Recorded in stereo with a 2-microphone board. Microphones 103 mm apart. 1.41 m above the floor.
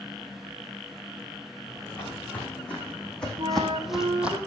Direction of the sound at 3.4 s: 50° right (ahead or behind).